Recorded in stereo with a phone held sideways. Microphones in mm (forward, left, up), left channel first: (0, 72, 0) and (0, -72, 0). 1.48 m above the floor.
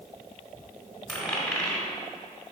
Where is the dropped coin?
5° left (ahead or behind), 1.3 m.